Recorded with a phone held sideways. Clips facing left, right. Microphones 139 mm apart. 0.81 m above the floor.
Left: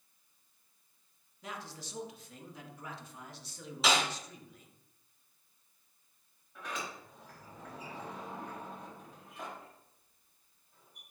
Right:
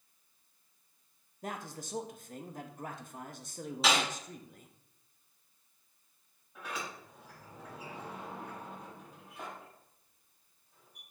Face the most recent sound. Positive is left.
turn(degrees=-10)  # may be behind; listen again after turning